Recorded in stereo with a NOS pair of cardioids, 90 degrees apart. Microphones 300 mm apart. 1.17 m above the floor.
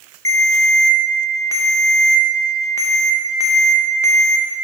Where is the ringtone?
10° left, 0.6 m.